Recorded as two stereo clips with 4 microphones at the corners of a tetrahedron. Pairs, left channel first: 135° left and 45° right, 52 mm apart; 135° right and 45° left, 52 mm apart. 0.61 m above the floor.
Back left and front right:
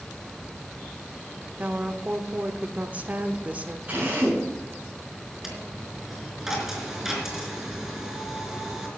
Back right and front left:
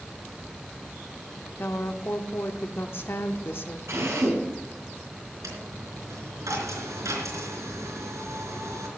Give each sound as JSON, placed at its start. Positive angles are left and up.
{"t": 1.6, "sound": "a woman speaking", "azimuth_deg": -100, "distance_m": 1.2}
{"t": 3.9, "sound": "a drill", "azimuth_deg": 15, "distance_m": 7.5}
{"t": 5.4, "sound": "a dropped coin", "azimuth_deg": 40, "distance_m": 4.0}